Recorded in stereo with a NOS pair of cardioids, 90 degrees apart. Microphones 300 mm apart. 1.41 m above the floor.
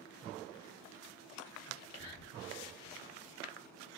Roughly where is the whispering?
Ahead left.